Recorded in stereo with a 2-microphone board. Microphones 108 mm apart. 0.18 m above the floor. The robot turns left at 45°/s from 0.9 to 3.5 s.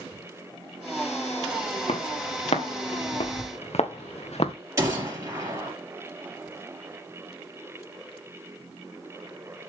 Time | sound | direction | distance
1.9 | footsteps | 60° left (ahead or behind) | 2.5 m
4.8 | a gunshot | 25° right (ahead or behind) | 3.5 m